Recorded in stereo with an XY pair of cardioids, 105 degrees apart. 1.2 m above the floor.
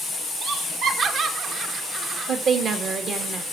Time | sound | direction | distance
0.4 | laughter | 55° right | 2 m
2.3 | a woman speaking | 60° right | 2.5 m